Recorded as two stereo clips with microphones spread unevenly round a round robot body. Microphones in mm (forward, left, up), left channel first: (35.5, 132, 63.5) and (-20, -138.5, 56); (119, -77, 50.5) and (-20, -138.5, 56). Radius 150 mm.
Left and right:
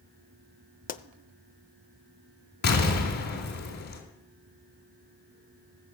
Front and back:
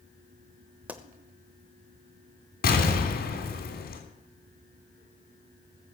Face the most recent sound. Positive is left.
turn(degrees=25)